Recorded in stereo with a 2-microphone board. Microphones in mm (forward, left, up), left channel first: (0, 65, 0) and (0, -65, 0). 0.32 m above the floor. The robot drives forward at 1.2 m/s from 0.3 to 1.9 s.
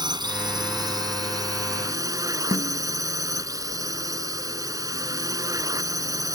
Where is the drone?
35° right (ahead or behind); by 6.3 s 25° right (ahead or behind).